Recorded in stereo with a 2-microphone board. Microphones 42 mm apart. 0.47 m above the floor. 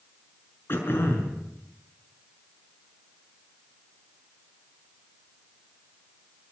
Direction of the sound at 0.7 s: 65° left (ahead or behind).